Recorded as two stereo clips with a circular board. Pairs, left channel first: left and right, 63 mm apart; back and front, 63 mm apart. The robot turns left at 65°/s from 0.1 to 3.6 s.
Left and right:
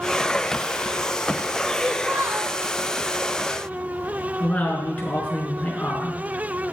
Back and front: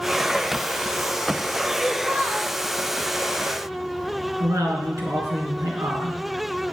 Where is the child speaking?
20° right, 1.5 m; by 2.5 s 70° right, 1.5 m.